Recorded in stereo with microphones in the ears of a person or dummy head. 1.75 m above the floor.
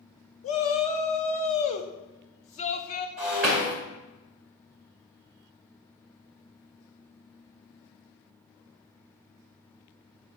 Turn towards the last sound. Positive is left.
turn(degrees=-5)  # may be behind; listen again after turning